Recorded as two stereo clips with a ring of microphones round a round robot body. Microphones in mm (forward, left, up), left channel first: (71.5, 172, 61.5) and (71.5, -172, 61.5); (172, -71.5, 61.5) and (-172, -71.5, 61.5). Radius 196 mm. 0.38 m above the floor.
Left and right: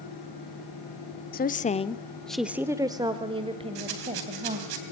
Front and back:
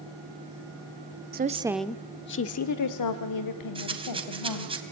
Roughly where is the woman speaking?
Behind left.